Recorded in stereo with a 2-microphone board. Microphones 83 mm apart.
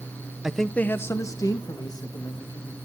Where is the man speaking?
10° right (ahead or behind), 0.7 m; by 2.8 s 60° left (ahead or behind), 2.5 m.